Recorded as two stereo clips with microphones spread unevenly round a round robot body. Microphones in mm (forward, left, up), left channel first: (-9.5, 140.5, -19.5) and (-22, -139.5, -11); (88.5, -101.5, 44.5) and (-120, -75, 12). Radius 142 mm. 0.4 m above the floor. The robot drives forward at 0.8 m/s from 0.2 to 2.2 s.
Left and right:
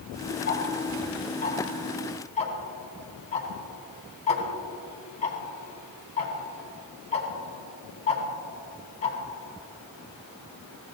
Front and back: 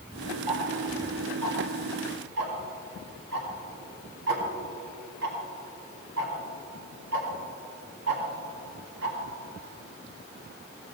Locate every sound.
0.5 s ticking: 130° left, 2.0 m; by 9.2 s 150° left, 3 m